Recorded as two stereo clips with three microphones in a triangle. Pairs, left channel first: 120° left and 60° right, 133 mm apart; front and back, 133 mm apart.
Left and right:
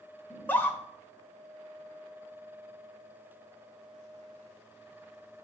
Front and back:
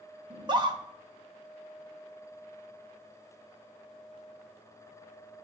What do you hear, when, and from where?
0.3 s a scream: 175° right, 1.4 m